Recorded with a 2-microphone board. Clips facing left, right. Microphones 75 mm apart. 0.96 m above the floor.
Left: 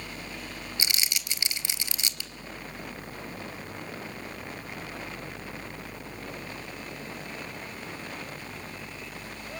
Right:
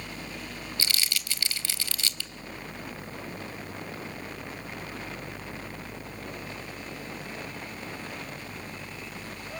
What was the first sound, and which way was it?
Crumpling, 20° left (ahead or behind).